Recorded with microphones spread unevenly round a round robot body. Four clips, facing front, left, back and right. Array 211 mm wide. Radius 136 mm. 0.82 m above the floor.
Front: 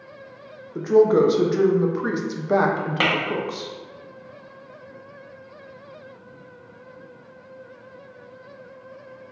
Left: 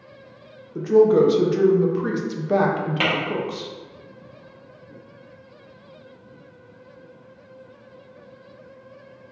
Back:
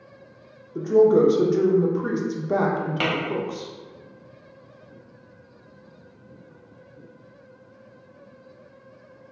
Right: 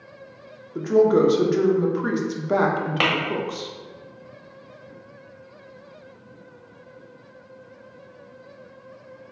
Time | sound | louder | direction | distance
0.8 | a woman speaking | left 2 dB, even | 15° right | 0.7 m
3.0 | tapping | right 1 dB, front 4 dB | 30° right | 1.4 m